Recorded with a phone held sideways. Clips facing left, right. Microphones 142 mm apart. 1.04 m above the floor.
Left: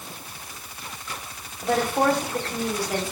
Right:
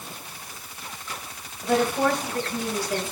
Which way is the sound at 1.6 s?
75° left (ahead or behind).